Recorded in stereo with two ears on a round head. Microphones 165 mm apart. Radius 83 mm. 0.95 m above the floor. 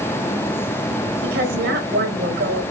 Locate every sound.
1.2 s a woman speaking: 55° right (ahead or behind), 4.5 m